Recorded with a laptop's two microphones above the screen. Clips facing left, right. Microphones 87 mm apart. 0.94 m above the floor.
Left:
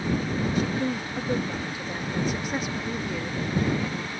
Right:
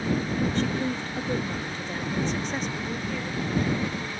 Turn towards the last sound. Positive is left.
turn(degrees=10)  # may be behind; listen again after turning